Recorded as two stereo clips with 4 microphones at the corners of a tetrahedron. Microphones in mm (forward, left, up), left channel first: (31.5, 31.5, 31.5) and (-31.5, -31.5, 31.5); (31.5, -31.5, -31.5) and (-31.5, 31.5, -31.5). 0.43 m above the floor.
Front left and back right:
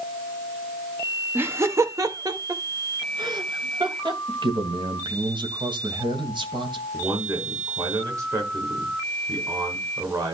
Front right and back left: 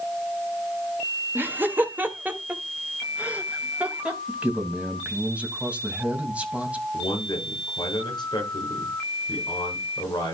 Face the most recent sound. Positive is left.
turn(degrees=-80)